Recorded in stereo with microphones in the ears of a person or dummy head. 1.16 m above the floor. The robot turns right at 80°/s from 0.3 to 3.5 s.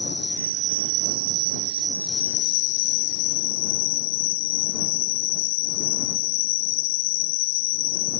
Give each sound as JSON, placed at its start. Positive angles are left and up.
{"t": 0.0, "sound": "an insect", "azimuth_deg": -145}